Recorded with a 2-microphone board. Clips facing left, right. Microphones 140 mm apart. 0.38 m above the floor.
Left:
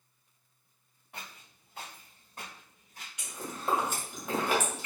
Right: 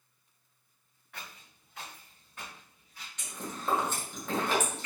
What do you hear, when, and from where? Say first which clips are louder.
1.1 s footsteps: left 1 dB; 30° left (ahead or behind), 1.7 m; by 3.1 s 55° left (ahead or behind), 0.9 m
3.2 s chewing: even; 15° left (ahead or behind), 1.5 m